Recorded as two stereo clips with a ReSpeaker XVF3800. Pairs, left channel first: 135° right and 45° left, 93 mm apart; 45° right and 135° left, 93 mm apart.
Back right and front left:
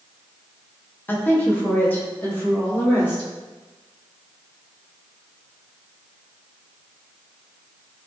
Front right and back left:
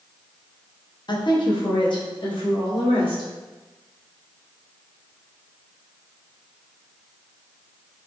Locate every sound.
1.1 s a woman speaking: 70° right, 0.6 m; by 3.3 s 65° right, 1.7 m